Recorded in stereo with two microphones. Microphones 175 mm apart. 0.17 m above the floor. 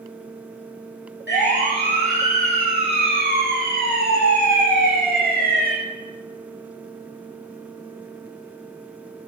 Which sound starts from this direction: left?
A siren, at 1.3 s.